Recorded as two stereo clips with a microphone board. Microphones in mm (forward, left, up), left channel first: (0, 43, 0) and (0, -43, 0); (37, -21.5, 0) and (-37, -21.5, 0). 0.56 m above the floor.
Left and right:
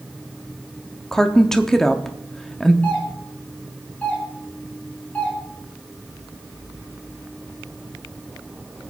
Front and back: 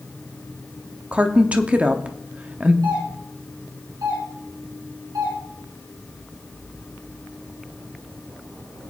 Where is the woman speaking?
165° left, 0.8 m.